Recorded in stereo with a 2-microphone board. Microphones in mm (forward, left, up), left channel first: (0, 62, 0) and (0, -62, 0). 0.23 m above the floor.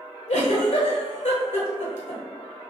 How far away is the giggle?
About 1.0 m.